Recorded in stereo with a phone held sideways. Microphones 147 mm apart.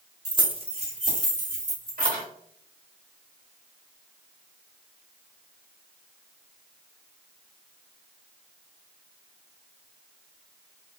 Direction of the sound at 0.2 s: 25° right (ahead or behind).